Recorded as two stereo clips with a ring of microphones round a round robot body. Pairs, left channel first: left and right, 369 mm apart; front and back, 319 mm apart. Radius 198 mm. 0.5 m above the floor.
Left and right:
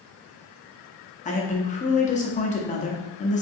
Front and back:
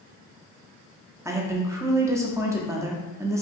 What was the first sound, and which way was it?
A woman speaking, 115° left.